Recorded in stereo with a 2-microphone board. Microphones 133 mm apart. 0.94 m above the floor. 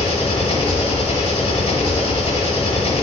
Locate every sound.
0.0 s an engine running: 50° left (ahead or behind), 1.2 m